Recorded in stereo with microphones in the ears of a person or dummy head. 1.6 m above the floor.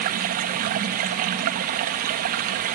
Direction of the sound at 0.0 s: 45° right (ahead or behind).